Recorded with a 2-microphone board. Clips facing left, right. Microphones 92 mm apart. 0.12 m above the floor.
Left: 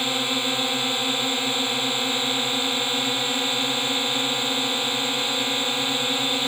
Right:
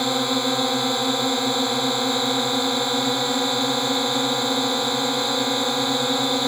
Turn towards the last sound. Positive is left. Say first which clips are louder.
# right 5 dB
turn(degrees=-20)  # may be behind; listen again after turning